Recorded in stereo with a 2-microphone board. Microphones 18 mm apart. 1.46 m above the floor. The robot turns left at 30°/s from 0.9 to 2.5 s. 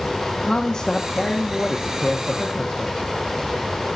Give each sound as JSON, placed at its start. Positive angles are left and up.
{"t": 0.4, "sound": "a woman speaking", "azimuth_deg": 135, "distance_m": 1.2}